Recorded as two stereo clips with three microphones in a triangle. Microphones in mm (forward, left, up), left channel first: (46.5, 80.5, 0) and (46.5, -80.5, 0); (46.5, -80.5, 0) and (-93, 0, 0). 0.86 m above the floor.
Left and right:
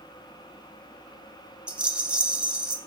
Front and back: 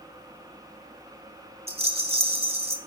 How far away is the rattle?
About 1.1 m.